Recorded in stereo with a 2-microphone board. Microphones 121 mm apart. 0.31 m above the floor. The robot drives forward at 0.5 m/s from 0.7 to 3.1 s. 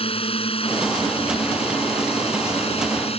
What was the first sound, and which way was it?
A drone, 50° left (ahead or behind).